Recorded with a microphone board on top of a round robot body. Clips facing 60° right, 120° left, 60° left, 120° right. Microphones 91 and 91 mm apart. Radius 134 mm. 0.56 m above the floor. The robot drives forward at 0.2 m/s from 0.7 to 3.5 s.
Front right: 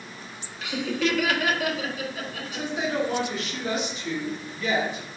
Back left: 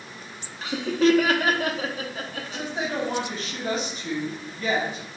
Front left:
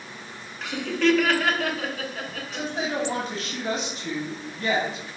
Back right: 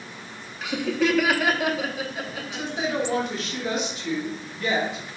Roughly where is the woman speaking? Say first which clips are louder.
Front right 2 dB, back right 1 dB; left.